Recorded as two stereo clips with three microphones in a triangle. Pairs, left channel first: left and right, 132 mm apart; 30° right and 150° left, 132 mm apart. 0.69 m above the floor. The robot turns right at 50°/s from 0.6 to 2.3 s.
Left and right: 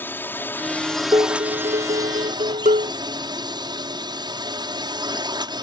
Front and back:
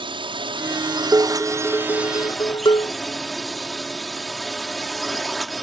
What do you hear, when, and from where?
0.0 s a drone: 155° left; by 5.6 s 120° right
1.1 s dishes clattering: 140° right; by 3.0 s 80° right